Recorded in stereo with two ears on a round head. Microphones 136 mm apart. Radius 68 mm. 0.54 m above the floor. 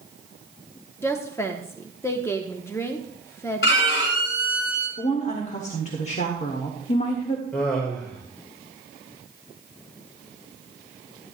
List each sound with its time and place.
1.0 s a woman speaking: 20° left (ahead or behind), 0.8 m
3.6 s a violin: 85° left, 3.5 m
5.0 s a woman speaking: 50° left (ahead or behind), 1.4 m
7.5 s laughter: 10° left (ahead or behind), 1.7 m